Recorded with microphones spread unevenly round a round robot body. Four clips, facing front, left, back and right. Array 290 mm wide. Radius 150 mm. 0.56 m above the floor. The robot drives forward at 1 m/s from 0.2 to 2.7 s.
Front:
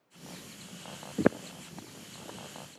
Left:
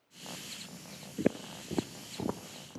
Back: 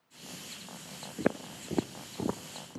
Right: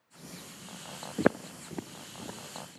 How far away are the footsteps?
About 0.6 m.